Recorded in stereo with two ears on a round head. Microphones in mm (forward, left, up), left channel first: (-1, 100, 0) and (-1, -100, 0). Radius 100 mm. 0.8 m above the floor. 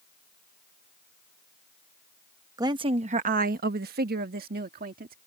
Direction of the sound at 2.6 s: 15° right (ahead or behind).